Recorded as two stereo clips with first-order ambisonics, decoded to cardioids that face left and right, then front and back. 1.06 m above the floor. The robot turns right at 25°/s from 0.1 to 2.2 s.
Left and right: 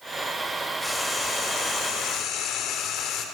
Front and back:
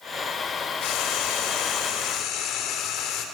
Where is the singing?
I don't hear singing.